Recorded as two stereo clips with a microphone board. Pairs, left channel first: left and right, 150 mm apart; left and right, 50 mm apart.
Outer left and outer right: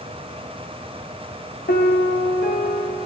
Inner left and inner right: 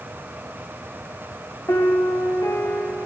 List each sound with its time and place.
1.7 s a piano: 80° left, 4.5 m